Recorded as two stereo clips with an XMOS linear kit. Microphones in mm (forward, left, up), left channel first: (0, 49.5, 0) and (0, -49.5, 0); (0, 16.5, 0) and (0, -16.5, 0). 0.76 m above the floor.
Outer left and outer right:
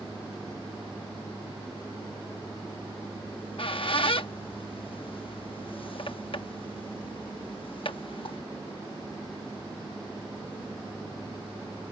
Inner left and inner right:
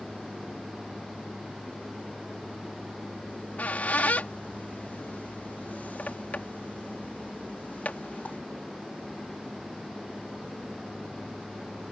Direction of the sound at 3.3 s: 60° left (ahead or behind).